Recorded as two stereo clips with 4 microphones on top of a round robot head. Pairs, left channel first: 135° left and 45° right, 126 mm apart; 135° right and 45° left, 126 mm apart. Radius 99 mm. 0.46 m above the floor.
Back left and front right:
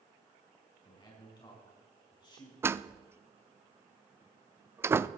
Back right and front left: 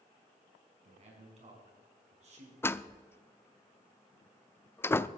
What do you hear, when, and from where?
0.8 s a man speaking: 80° left, 5 m
2.6 s a door slam: 90° right, 0.5 m